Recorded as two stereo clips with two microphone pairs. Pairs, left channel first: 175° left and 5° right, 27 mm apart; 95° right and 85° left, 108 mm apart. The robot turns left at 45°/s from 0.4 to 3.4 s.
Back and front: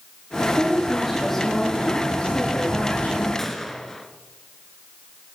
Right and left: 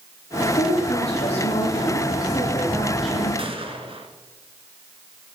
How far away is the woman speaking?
About 9 m.